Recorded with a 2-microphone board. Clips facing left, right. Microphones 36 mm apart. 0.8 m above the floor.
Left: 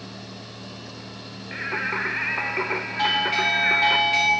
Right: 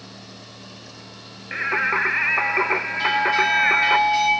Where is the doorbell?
60° left (ahead or behind), 2.5 m.